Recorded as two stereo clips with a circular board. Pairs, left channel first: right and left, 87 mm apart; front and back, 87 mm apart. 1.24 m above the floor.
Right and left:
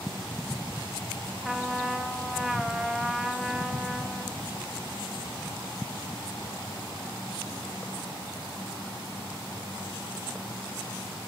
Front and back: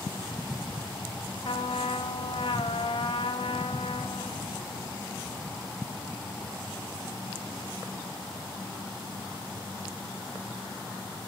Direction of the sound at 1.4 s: 5° left.